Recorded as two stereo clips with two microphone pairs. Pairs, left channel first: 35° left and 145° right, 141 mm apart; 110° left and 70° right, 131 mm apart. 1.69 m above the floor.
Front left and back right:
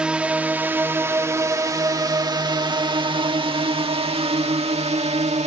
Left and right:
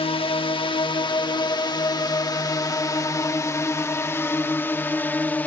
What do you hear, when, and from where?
0.0 s a drone: 135° left; by 5.5 s 175° right